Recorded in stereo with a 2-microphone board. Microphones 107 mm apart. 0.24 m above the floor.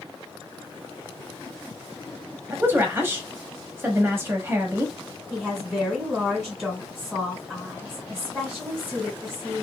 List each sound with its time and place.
2.5 s a woman speaking: 20° right (ahead or behind), 0.9 m
5.3 s a woman speaking: centre (ahead or behind), 1.5 m